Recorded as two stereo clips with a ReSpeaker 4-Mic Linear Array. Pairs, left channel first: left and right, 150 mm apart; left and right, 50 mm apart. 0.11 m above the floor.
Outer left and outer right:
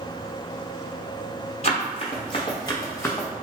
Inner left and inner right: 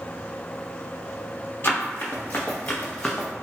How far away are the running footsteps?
About 1.2 m.